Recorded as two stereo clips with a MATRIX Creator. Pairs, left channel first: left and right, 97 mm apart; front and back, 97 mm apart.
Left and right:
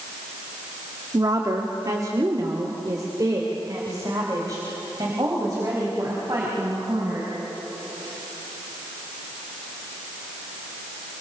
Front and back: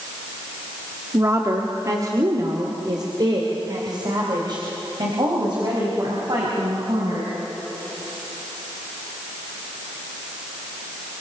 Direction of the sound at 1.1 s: 130° right.